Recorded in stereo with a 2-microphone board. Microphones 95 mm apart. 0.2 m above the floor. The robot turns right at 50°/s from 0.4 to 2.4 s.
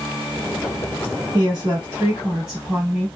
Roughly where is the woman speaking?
Right.